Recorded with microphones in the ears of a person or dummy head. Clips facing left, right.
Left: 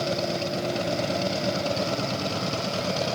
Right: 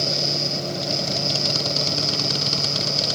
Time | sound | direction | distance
0.0 | a fan | 60° right (ahead or behind) | ?